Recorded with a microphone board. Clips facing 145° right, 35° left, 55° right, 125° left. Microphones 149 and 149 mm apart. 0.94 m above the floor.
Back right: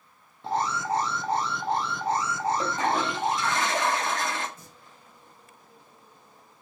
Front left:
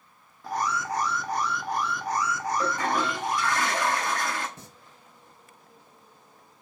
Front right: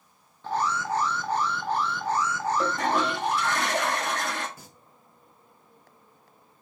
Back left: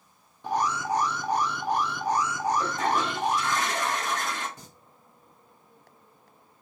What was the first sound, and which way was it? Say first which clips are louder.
An alarm: back right 2 dB, back left 1 dB; 175° right.